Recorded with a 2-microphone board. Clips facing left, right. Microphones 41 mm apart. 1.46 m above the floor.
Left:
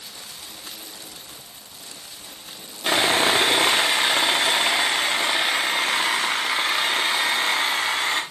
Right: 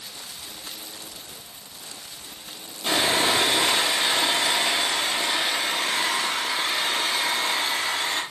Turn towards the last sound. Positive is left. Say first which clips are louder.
# left 3 dB
turn(degrees=40)  # may be behind; listen again after turning